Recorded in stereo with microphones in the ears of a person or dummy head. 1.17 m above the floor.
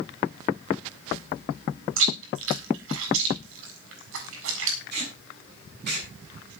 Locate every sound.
2.0 s chewing: 85° right, 7.5 m
4.9 s tape being pulled: 50° right (ahead or behind), 7.5 m